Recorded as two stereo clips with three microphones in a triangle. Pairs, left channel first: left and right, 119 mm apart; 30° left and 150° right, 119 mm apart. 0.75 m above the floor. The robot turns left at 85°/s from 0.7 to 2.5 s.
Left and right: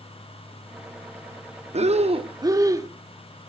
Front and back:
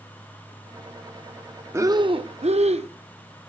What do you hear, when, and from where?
1.7 s breathing: 85° right, 0.8 m; by 2.9 s 150° right, 0.8 m